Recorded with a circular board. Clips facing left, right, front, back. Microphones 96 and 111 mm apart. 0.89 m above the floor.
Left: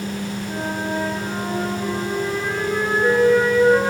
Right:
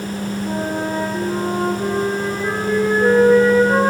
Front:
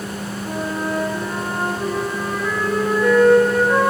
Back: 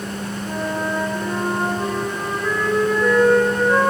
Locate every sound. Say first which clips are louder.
0.5 s a flute: right 4 dB, even; 95° right, 3.5 m